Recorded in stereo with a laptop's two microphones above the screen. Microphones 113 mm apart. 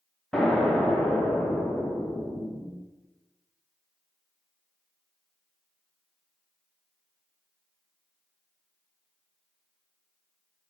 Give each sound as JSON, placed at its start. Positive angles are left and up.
{"t": 0.3, "sound": "an explosion", "side_deg": 5, "distance_m": 0.5}